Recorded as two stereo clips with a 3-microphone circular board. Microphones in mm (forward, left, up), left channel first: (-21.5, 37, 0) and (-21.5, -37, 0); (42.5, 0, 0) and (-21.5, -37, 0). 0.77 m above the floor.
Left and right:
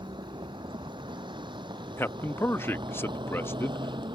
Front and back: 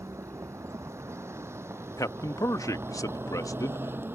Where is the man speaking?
40° left.